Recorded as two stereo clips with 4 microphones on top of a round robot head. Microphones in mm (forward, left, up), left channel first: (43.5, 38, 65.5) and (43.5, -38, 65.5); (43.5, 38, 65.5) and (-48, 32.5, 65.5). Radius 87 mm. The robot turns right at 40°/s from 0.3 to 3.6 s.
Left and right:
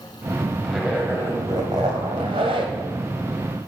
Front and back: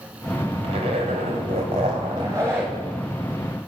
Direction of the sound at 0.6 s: Straight behind.